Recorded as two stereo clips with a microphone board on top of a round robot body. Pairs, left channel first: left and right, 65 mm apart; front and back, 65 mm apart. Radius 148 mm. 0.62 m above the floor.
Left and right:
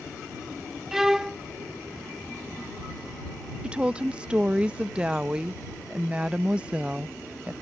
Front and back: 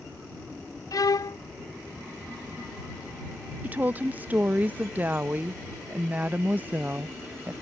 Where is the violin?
5° right.